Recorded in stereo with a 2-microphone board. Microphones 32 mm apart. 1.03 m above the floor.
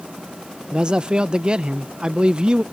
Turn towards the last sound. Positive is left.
turn(degrees=-25)  # may be behind; listen again after turning